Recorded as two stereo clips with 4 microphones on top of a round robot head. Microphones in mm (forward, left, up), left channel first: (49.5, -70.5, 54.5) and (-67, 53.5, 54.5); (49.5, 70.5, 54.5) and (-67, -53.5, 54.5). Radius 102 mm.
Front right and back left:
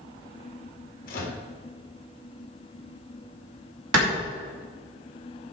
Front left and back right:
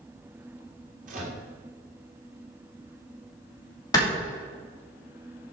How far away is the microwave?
About 2.5 m.